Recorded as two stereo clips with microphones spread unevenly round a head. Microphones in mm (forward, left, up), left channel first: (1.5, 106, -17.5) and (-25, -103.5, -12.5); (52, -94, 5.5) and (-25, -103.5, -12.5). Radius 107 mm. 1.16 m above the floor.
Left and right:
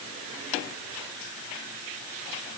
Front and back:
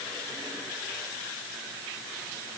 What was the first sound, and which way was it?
Only background noise.